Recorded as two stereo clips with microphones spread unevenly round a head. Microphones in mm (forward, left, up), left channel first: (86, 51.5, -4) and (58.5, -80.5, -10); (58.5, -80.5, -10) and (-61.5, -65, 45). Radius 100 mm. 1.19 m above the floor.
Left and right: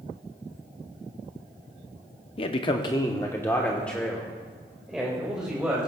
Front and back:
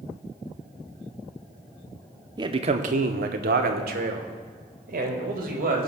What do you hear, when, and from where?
2.4 s a man speaking: 95° left, 0.5 m; by 5.9 s 175° left, 2 m